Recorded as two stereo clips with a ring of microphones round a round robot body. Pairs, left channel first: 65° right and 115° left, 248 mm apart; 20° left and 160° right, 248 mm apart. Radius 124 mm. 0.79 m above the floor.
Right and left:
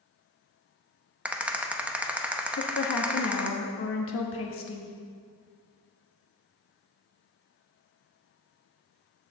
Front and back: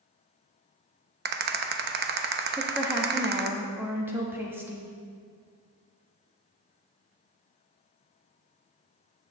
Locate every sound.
1.2 s a rattle: 165° right, 0.7 m
2.6 s a woman speaking: 80° right, 1.1 m